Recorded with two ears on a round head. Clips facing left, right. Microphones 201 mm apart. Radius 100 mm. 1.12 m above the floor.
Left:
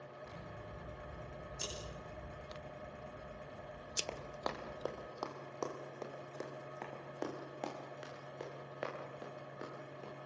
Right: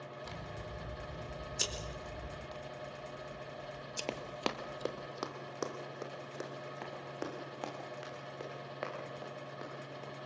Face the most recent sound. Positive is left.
turn(degrees=5)  # may be behind; listen again after turning